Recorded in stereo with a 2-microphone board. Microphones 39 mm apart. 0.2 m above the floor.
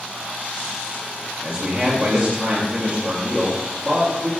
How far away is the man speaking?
About 3.5 m.